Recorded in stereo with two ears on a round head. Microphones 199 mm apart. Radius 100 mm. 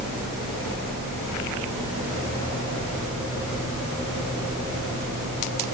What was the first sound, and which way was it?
Only background noise.